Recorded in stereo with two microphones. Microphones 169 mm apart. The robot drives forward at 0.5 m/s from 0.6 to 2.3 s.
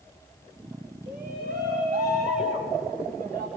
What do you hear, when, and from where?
1.1 s a shout: 60° right (ahead or behind), 6.5 m; by 3.5 s 55° right (ahead or behind), 6.5 m